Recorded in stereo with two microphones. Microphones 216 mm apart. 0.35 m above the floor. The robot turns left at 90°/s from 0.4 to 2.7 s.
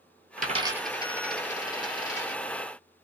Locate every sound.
0.4 s a dropped coin: 40° right (ahead or behind), 0.8 m; by 2.4 s 40° left (ahead or behind), 0.8 m